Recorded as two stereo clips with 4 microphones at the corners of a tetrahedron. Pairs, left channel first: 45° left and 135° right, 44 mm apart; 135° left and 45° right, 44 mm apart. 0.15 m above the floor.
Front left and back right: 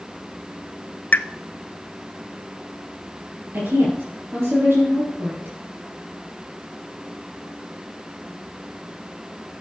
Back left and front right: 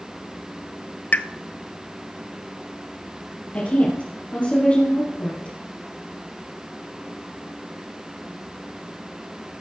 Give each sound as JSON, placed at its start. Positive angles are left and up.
{"t": 1.1, "sound": "a pop", "azimuth_deg": 90, "distance_m": 0.6}
{"t": 3.5, "sound": "a woman speaking", "azimuth_deg": -170, "distance_m": 4.0}